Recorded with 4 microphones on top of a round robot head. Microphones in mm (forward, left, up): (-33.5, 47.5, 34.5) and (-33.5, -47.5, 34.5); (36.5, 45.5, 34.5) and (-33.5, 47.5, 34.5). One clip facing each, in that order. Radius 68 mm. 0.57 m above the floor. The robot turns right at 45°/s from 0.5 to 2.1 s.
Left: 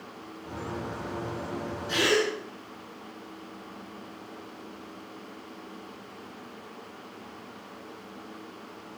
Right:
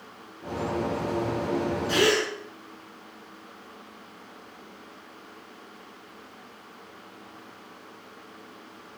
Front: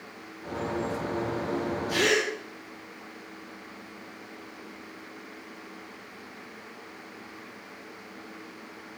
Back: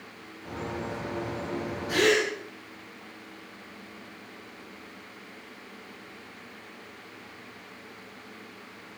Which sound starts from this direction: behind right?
A gasp, at 1.9 s.